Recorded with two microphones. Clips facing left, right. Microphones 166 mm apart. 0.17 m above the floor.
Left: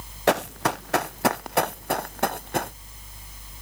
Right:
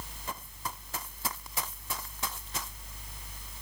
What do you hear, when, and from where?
0.3 s running footsteps: 80° left; by 2.7 s 65° left (ahead or behind)